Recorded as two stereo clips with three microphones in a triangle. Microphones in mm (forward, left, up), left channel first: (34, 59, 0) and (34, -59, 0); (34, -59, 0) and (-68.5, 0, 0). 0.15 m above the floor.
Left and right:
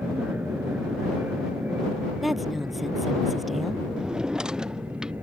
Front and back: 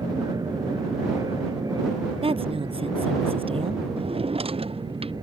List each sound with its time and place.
0.0 s an aircraft: 165° right; by 5.2 s 160° right
2.2 s a woman speaking: straight behind
4.0 s a drawer: 175° right